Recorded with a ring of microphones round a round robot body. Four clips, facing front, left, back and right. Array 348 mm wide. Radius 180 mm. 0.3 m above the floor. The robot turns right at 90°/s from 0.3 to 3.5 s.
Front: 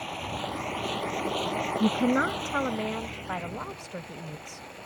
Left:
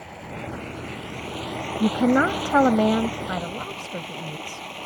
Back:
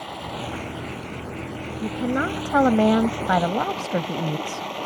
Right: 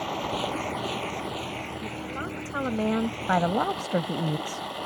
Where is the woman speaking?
60° left; by 4.7 s 145° right.